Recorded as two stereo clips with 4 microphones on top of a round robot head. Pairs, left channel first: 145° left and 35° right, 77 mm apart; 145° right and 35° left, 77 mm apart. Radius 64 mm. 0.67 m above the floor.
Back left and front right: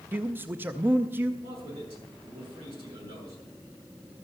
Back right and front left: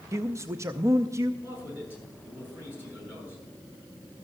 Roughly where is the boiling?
No boiling in this recording.